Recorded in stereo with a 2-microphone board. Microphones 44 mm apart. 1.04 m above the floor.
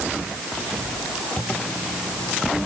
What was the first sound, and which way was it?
A zipper, 15° left (ahead or behind).